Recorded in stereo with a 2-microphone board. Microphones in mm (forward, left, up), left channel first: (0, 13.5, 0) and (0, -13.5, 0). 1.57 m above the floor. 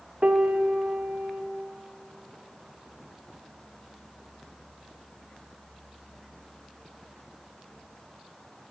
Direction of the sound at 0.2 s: 60° right (ahead or behind).